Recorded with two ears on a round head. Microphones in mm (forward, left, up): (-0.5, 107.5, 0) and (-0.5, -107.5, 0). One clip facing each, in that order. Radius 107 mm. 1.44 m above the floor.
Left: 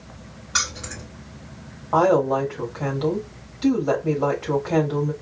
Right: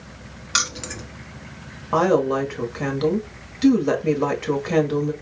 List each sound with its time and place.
0.5 s keys jangling: 40° right (ahead or behind), 1.1 m
1.9 s a woman speaking: 40° right (ahead or behind), 1.3 m